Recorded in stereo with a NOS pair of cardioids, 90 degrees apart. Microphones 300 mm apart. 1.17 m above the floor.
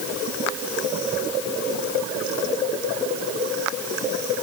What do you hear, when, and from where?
Only background noise.